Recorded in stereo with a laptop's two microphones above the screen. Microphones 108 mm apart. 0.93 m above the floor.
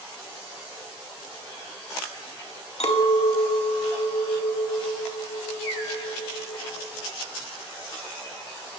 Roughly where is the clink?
Left.